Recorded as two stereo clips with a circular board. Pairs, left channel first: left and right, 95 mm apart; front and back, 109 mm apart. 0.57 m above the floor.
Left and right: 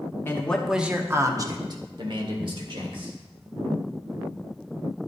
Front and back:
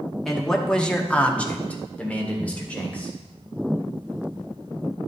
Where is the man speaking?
85° left, 1.0 m; by 3.1 s 75° right, 3 m.